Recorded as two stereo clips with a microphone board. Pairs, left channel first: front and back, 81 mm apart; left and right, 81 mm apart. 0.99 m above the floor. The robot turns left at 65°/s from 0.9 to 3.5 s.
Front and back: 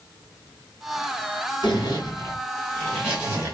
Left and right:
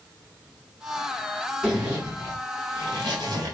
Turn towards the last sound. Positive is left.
turn(degrees=-130)